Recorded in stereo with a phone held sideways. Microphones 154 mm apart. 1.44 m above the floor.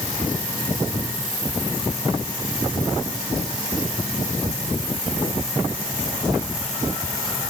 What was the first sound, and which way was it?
Only background noise.